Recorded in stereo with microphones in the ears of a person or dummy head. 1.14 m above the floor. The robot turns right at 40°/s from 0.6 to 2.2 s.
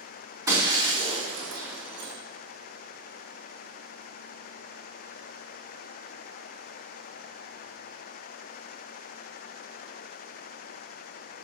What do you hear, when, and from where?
0.5 s breaking glass: 15° right (ahead or behind), 2.5 m; by 2.1 s 70° right (ahead or behind), 2.5 m